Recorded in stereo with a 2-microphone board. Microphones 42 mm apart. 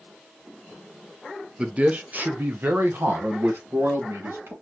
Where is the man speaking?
25° right (ahead or behind), 0.7 m; by 4.5 s 75° right (ahead or behind), 1.9 m.